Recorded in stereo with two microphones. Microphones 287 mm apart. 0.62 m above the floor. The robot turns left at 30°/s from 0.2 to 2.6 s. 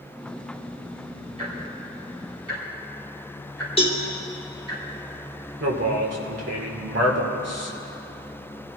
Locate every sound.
1.4 s ticking: 25° right (ahead or behind), 7 m; by 4.8 s 60° right (ahead or behind), 7 m
3.8 s a cowbell: 20° left (ahead or behind), 2.5 m
5.6 s a man speaking: 60° right (ahead or behind), 2.5 m